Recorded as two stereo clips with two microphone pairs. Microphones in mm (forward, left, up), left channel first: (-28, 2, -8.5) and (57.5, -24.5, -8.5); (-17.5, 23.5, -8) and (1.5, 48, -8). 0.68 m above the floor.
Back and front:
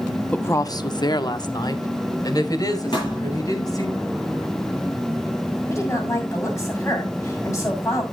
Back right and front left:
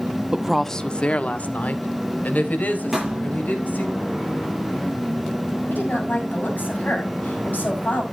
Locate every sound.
0.3 s a woman speaking: 95° left, 0.6 m; by 3.9 s 150° right, 4 m
2.9 s a thud: 130° left, 8 m
5.7 s a woman speaking: 140° right, 5.5 m